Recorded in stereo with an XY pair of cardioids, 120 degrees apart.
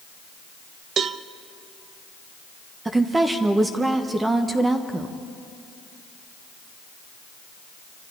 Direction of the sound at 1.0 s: 50° right.